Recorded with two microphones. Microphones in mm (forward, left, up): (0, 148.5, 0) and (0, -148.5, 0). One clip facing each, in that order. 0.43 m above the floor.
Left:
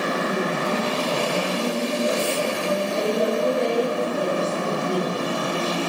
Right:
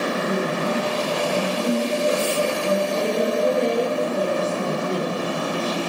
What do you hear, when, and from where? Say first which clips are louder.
0.1 s a woman speaking: right 1 dB; 25° right (ahead or behind), 4.5 m